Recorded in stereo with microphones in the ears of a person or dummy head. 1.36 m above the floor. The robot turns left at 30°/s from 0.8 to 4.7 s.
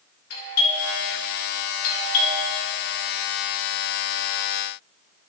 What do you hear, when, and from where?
0.3 s a doorbell: 75° left (ahead or behind), 3 m; by 2.4 s 40° left (ahead or behind), 3 m